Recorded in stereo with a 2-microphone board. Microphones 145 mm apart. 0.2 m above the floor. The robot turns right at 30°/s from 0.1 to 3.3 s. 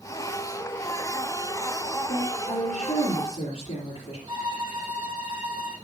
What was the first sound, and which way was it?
A woman speaking, 95° left.